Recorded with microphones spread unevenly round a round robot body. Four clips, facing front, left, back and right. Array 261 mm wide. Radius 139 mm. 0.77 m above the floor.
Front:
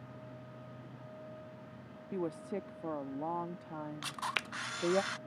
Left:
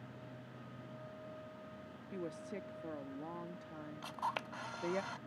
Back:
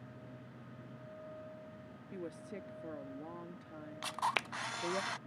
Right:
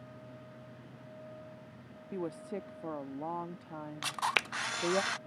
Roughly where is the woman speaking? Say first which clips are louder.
Right 6 dB, front 8 dB; ahead.